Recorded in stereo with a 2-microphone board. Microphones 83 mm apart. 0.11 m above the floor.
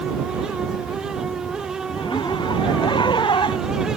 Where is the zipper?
65° left (ahead or behind).